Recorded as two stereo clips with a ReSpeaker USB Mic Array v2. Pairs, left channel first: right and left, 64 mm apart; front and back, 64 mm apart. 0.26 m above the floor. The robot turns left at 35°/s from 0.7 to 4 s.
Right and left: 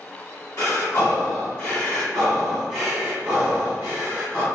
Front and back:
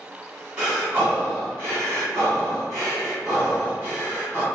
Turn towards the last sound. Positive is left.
turn(degrees=135)